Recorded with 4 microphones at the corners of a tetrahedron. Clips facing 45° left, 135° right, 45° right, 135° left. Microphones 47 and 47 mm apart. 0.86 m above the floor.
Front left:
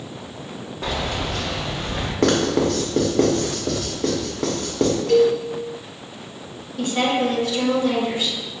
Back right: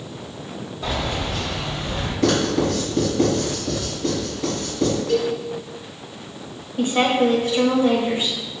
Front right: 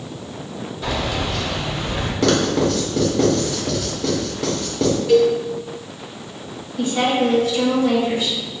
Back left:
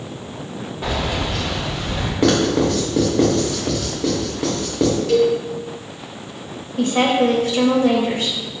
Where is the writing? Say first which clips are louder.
Front left 1 dB, back left 1 dB; 60° left, 1.2 m.